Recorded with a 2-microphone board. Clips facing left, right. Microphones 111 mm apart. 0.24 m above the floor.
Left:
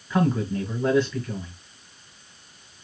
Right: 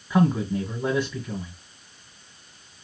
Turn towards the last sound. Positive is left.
turn(degrees=-10)  # may be behind; listen again after turning